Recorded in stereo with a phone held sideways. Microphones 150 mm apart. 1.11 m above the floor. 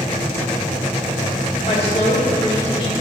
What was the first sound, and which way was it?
A woman speaking, 50° left (ahead or behind).